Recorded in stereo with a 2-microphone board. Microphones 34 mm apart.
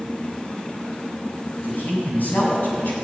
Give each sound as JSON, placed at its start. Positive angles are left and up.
{"t": 1.6, "sound": "a man speaking", "side_deg": 60, "distance_m": 7.0}